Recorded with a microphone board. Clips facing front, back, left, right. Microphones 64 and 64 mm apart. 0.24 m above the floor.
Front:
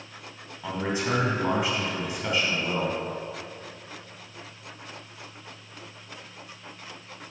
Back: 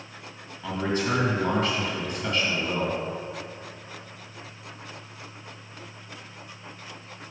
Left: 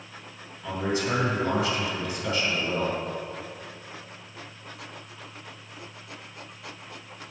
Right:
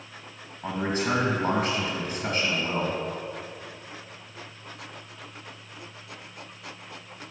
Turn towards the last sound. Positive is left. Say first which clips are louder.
# back 1 dB, even
turn(degrees=-70)